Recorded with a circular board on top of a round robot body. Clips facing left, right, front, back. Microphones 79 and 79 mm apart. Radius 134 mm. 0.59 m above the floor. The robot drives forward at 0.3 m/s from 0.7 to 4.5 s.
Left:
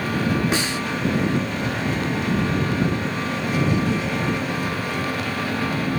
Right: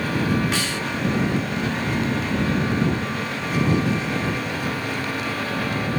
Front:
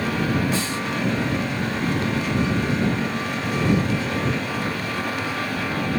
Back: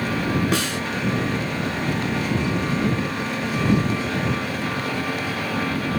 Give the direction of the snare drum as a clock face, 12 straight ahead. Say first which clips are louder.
Left 2 dB, back 2 dB; 7 o'clock.